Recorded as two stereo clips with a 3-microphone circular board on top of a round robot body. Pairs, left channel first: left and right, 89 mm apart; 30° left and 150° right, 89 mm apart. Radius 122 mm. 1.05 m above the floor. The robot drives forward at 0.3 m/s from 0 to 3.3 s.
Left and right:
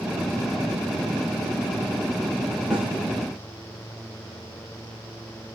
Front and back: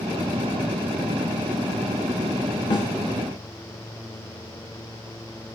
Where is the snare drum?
10° right, 2.0 m.